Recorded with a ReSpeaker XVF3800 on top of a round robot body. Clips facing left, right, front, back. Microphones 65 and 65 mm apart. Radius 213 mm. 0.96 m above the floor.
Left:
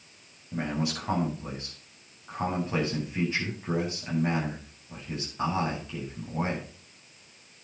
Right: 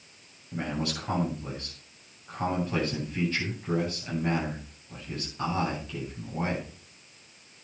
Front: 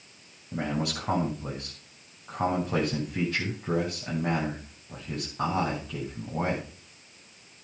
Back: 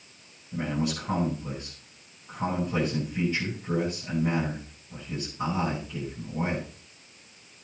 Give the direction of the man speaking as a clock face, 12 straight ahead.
11 o'clock.